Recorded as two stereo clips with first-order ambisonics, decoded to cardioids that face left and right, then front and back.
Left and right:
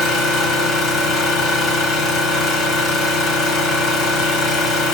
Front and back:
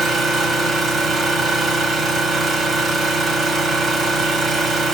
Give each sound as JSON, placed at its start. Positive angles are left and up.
{"t": 0.0, "sound": "an engine running", "azimuth_deg": 125, "distance_m": 1.6}